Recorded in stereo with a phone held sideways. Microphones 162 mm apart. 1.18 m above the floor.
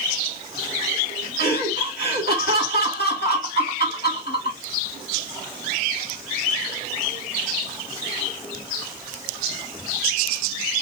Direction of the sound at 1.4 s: 80° left.